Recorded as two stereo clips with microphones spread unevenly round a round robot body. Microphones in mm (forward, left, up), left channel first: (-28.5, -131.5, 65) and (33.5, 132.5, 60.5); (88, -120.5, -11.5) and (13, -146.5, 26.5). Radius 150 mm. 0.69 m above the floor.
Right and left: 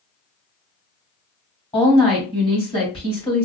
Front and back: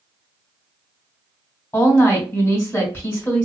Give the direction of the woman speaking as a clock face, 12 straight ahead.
1 o'clock.